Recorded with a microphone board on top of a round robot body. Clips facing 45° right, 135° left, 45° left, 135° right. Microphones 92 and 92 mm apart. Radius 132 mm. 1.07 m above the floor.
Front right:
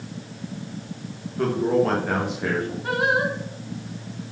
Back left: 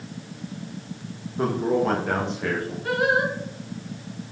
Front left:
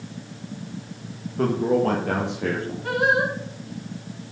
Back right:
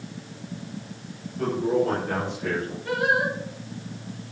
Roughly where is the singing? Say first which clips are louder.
Back left 1 dB, front left 3 dB; ahead.